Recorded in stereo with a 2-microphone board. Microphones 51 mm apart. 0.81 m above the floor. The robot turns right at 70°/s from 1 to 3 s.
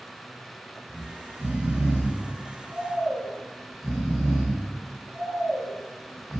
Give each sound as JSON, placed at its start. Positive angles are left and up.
{"t": 0.9, "sound": "snoring", "azimuth_deg": -140, "distance_m": 4.0}